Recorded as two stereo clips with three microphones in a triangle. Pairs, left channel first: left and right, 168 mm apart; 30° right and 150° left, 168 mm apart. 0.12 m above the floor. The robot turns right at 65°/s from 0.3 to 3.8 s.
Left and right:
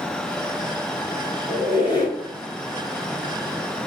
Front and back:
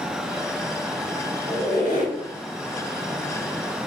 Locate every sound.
1.5 s a squeak: 100° left, 1.3 m; by 2.2 s 140° left, 1.3 m